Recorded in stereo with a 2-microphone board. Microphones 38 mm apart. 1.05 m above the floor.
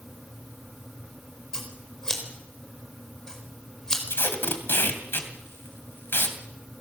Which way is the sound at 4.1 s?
80° left.